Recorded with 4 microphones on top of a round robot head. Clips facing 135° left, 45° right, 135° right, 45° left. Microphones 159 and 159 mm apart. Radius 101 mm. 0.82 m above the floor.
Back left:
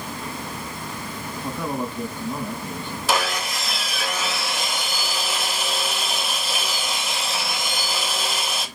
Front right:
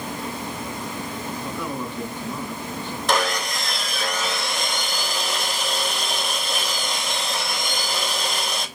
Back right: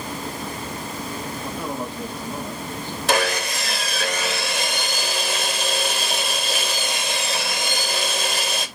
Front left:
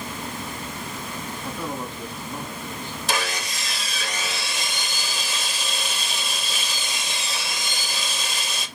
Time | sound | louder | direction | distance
1.4 | a man speaking | back left 4 dB, back right 1 dB | straight behind | 5 m
3.1 | sawing | front right 1 dB, back right 7 dB | 140° right | 1.7 m